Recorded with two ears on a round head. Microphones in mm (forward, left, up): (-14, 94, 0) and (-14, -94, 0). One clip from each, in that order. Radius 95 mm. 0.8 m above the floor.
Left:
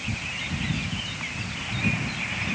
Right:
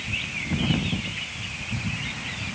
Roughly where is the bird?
No bird in this recording.